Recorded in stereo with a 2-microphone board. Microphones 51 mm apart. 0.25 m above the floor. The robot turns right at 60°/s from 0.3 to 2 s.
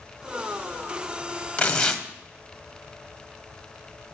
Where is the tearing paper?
20° left (ahead or behind), 1.0 m; by 2.0 s 10° left (ahead or behind), 1.0 m.